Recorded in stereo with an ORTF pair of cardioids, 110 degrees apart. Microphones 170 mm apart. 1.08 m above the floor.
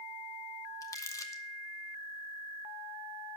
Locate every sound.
0.8 s crumpling: 20° left, 1.6 m